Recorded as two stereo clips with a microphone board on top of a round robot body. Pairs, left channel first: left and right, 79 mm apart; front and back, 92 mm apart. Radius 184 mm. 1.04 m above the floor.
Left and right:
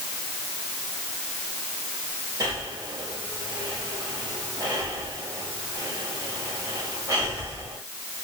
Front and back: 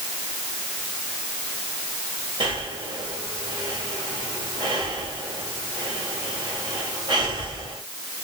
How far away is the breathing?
About 3 m.